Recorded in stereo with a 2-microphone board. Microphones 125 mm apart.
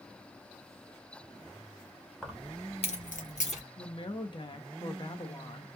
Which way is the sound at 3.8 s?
40° left (ahead or behind).